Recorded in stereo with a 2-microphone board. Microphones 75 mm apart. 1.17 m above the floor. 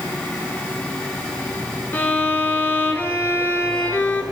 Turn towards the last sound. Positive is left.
turn(degrees=25)  # may be behind; listen again after turning